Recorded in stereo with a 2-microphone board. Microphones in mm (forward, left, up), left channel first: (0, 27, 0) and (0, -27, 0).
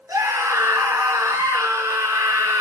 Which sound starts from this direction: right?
A scream, at 0.1 s.